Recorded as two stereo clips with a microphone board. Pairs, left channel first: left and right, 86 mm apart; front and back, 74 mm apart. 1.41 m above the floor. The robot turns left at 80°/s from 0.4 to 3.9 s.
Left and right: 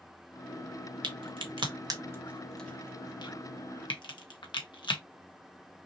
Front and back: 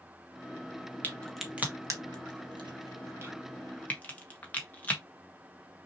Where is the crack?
65° right, 1.2 m; by 5.0 s 70° left, 1.2 m.